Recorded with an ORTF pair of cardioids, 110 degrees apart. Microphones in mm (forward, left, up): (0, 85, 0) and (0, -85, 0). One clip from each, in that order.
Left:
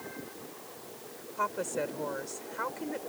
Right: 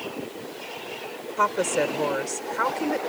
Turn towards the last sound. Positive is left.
turn(degrees=-55)